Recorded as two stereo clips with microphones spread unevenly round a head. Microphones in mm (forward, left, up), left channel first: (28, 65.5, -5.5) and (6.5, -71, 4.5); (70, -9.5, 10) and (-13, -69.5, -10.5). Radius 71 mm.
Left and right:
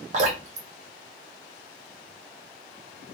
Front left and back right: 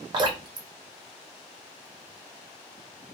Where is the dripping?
100° right, 1.1 m.